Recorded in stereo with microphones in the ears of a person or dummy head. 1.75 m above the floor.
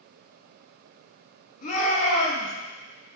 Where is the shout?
45° left (ahead or behind), 3 m.